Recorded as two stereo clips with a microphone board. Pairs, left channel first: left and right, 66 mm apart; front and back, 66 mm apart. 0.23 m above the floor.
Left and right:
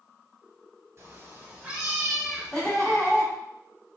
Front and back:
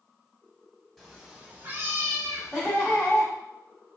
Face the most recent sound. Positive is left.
turn(degrees=160)